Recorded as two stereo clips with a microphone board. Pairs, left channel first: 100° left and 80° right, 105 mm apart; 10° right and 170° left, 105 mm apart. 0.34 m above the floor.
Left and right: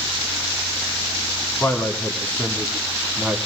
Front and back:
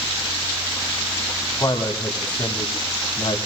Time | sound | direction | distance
1.6 | a man speaking | 30° left | 2.5 m